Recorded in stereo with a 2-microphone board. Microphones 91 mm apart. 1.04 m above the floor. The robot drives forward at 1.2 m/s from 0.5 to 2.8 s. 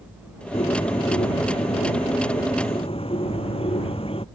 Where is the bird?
80° left; by 4.2 s 70° left (ahead or behind).